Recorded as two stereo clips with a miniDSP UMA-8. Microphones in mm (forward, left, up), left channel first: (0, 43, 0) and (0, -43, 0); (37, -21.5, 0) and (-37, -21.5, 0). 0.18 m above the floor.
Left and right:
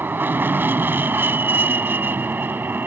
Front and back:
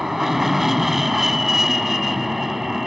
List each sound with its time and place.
0.0 s an aircraft: 100° right